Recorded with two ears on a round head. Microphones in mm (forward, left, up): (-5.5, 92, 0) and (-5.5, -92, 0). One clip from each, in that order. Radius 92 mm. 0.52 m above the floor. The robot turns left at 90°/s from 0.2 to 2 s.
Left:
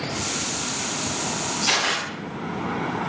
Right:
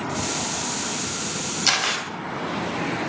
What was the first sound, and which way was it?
A camera shutter, 40° right.